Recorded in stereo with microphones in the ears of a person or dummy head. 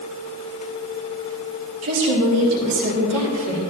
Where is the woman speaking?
85° right, 2.5 m; by 3.6 s 75° right (ahead or behind), 3 m.